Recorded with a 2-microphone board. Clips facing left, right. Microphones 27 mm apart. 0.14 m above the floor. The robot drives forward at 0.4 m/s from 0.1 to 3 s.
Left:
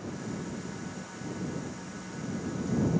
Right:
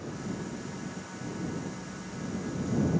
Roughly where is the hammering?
No hammering in this recording.